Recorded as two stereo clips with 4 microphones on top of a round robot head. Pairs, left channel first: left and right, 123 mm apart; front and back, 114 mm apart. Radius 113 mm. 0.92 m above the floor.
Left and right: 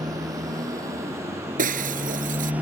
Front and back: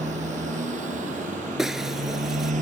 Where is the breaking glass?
90° right.